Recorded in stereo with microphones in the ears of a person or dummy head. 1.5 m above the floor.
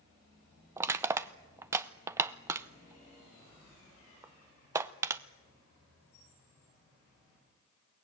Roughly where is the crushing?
Centre.